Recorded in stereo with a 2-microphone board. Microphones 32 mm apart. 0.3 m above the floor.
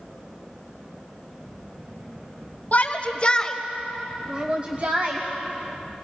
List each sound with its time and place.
2.7 s a shout: 50° left (ahead or behind), 2.0 m; by 5.2 s 55° right (ahead or behind), 2 m